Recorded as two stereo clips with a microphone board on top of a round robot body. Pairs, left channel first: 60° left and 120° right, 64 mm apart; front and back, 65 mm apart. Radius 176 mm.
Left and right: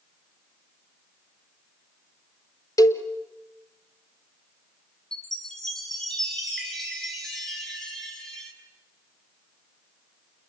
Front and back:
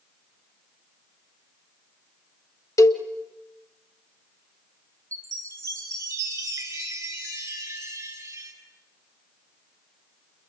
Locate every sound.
2.8 s a cowbell: 35° left, 1.4 m
5.1 s a chime: 140° left, 6.5 m